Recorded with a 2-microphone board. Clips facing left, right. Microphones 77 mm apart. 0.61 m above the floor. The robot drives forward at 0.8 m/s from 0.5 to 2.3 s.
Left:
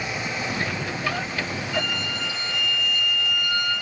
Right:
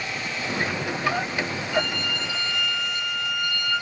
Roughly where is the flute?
Right.